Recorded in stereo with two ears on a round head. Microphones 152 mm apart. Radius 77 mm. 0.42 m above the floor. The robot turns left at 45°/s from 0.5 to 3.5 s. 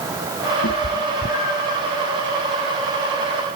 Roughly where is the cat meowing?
Left.